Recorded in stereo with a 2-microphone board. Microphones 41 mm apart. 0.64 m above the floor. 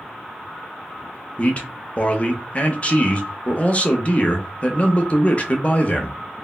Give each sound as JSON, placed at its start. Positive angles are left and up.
{"t": 1.4, "sound": "a man speaking", "side_deg": 30, "distance_m": 0.6}